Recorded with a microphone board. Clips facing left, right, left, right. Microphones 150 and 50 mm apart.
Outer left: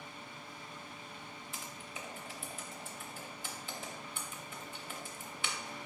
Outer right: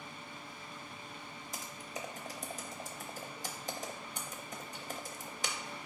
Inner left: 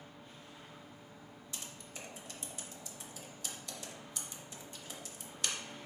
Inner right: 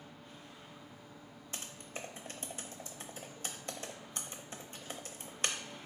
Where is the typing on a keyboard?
40° right (ahead or behind), 0.6 m.